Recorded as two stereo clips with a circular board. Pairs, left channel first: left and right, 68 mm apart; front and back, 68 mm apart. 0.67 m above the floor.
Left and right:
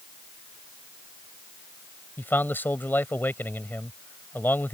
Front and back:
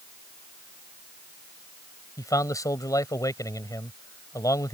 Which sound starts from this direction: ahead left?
A man speaking, at 2.2 s.